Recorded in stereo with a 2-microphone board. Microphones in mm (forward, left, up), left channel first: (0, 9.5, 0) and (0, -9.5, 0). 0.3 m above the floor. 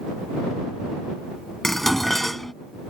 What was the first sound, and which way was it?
Dishes clattering, 15° left (ahead or behind).